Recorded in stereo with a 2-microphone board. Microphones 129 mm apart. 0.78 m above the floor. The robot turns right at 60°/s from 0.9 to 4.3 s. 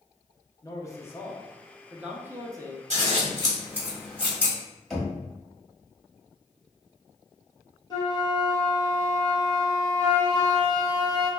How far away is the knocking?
About 1.1 m.